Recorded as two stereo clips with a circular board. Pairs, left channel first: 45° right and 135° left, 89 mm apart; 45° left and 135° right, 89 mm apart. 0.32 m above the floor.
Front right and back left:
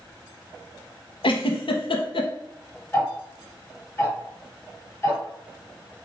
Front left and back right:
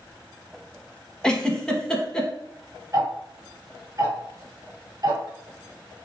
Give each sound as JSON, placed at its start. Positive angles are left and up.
{"t": 1.2, "sound": "a giggle", "azimuth_deg": -35, "distance_m": 0.6}
{"t": 2.9, "sound": "ticking", "azimuth_deg": -105, "distance_m": 1.3}